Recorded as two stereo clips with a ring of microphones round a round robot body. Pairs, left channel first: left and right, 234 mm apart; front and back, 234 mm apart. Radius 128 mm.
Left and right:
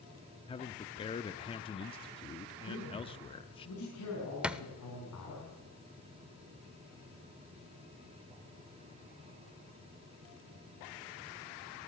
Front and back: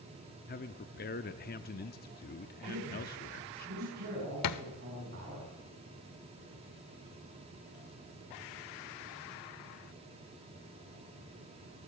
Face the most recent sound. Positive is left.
turn(degrees=-5)